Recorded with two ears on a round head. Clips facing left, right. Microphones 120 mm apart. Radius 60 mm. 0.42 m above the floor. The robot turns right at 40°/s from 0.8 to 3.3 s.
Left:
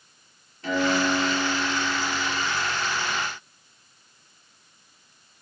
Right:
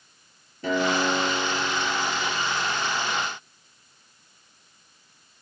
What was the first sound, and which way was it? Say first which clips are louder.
A guitar: even; 85° right.